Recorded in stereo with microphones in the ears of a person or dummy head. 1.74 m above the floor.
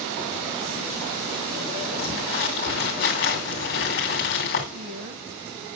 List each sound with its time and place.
2.0 s crumpling: 45° left (ahead or behind), 2.5 m
4.7 s a woman speaking: 40° right (ahead or behind), 1.5 m